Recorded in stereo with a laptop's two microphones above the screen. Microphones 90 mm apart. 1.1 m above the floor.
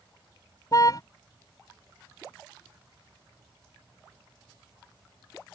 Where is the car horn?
45° left (ahead or behind).